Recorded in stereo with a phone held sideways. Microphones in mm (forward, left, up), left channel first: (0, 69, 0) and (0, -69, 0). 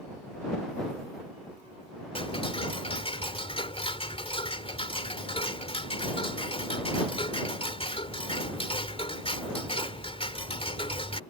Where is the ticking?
45° left (ahead or behind).